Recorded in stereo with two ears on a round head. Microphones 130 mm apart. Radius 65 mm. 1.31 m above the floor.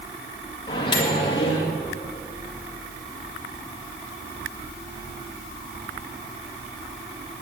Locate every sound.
0.7 s a microwave: 35° left (ahead or behind), 1.9 m